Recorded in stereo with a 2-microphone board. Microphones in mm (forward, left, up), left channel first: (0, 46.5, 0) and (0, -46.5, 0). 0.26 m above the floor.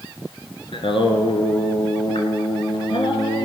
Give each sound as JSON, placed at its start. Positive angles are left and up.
{"t": 0.7, "sound": "singing", "side_deg": 70, "distance_m": 1.3}